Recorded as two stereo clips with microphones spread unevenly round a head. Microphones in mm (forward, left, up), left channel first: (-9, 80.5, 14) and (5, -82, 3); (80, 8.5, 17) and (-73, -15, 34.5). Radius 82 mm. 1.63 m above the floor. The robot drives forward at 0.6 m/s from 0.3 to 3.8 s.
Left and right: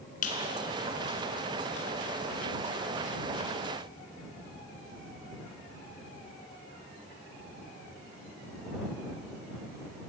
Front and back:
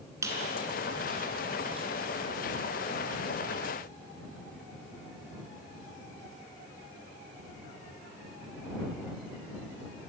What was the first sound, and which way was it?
A squeak, 125° left.